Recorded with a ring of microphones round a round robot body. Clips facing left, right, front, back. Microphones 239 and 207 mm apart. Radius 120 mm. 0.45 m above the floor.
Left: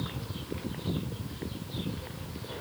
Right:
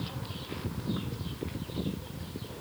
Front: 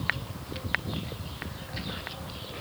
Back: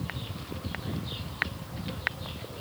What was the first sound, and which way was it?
Only background noise.